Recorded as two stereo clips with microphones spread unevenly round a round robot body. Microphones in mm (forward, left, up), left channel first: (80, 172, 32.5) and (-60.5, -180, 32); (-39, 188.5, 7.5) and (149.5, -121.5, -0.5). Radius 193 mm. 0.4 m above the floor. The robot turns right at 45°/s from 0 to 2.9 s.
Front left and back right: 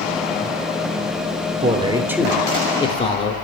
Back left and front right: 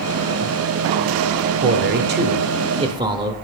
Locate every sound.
1.6 s a man speaking: 55° right, 0.9 m; by 3.3 s 5° left, 0.9 m